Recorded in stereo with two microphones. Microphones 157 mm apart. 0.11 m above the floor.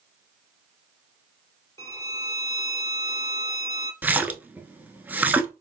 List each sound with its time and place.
1.8 s a violin: 20° left (ahead or behind), 0.7 m
4.0 s a splash: 10° right (ahead or behind), 0.7 m